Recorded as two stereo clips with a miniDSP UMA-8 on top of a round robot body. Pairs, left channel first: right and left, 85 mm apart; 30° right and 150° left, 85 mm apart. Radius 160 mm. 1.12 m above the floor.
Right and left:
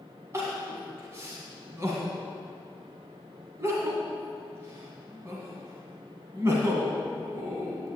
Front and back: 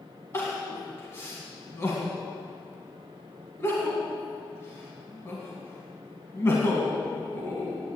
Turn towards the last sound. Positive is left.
turn(degrees=30)